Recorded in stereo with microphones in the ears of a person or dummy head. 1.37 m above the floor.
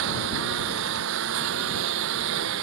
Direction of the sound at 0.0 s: 70° right (ahead or behind).